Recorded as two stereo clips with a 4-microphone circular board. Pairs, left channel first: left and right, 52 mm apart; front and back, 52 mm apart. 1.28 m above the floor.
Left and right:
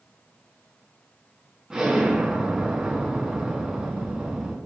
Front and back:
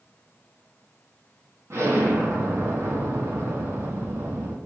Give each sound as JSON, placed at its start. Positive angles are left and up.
{"t": 1.7, "sound": "an explosion", "azimuth_deg": -170, "distance_m": 3.5}